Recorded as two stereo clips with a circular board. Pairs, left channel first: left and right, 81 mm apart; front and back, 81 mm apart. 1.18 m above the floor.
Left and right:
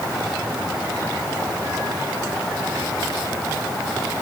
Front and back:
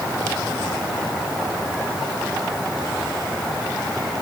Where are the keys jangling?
No keys jangling in this recording.